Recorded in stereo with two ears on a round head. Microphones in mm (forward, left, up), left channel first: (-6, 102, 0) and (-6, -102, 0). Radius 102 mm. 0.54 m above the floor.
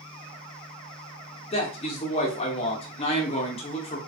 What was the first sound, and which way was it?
A man speaking, 25° left (ahead or behind).